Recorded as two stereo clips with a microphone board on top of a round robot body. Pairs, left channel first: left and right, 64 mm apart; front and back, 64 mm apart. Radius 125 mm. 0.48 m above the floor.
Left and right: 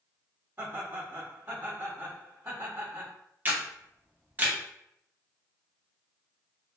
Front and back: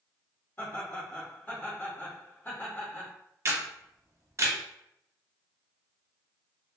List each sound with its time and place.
0.6 s laughter: 55° right, 1.7 m
3.5 s a camera shutter: 145° right, 0.8 m